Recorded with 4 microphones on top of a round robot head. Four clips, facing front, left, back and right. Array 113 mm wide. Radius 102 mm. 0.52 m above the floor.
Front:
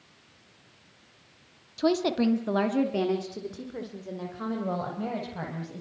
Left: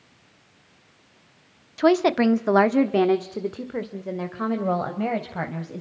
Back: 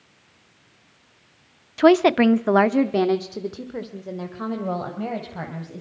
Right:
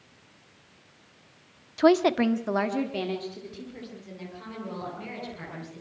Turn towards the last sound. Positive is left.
turn(degrees=95)